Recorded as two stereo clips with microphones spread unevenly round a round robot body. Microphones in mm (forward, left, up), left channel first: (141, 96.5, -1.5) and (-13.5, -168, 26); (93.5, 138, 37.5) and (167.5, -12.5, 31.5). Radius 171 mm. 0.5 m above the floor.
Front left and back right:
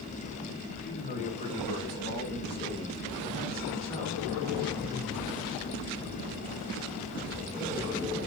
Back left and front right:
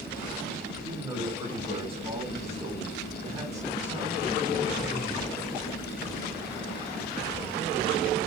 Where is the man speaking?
Straight ahead, 3.5 m; by 4.9 s 20° right, 7.5 m.